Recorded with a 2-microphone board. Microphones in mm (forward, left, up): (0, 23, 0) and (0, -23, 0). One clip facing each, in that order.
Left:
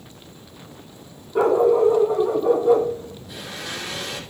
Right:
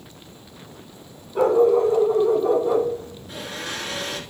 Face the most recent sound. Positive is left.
turn(degrees=-40)  # may be behind; listen again after turning